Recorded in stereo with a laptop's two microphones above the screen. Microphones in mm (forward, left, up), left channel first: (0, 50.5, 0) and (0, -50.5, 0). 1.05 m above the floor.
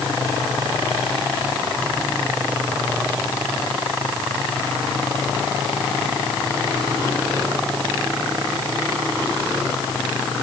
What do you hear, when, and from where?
Only background noise.